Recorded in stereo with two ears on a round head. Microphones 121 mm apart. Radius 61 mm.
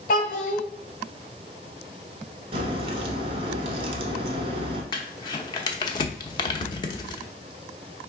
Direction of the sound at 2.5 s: 45° right (ahead or behind).